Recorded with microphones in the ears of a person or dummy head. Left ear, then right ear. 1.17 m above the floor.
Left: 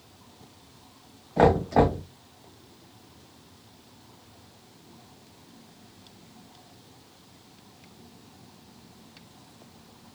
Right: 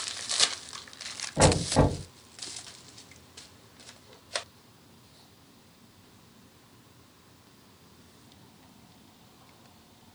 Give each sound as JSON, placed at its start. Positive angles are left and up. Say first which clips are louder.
{"t": 1.4, "sound": "knocking", "louder": "left 3 dB", "side_deg": 60, "distance_m": 1.6}